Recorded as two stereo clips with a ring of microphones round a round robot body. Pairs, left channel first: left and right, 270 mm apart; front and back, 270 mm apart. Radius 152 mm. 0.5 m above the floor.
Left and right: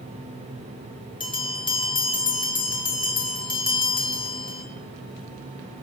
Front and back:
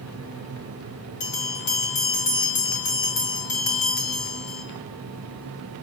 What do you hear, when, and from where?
1.2 s a bell: 20° left, 3.5 m